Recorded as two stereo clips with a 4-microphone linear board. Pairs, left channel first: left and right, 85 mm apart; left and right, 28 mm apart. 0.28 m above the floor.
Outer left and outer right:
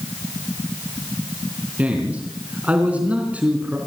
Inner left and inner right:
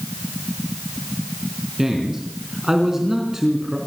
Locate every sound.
1.8 s a man speaking: 15° right (ahead or behind), 3.5 m